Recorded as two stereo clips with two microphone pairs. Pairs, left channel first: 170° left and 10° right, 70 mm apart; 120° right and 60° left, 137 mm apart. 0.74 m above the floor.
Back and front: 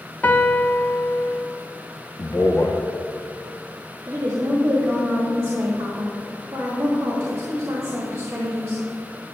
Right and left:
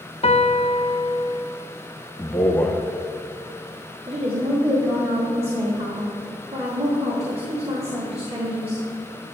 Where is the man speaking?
165° left, 0.7 m.